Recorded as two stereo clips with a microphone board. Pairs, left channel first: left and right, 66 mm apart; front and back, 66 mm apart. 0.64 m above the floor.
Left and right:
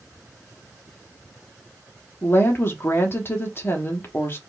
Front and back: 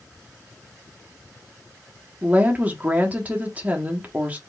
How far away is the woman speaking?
About 1.1 m.